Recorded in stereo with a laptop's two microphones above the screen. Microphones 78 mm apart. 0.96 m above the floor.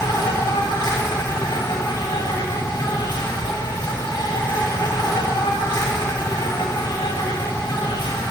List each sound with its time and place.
0.0 s an insect: 70° left (ahead or behind), 1.6 m